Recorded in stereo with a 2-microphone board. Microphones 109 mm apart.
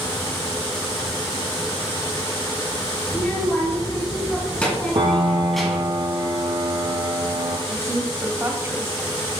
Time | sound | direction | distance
3.1 | a child speaking | 20° left (ahead or behind) | 3 m
5.0 | a piano | 50° right (ahead or behind) | 1.4 m
7.7 | a woman speaking | 25° right (ahead or behind) | 1.0 m